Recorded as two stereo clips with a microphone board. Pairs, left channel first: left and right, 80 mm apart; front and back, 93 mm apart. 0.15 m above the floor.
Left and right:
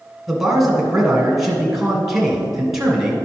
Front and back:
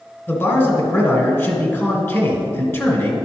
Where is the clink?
I don't hear a clink.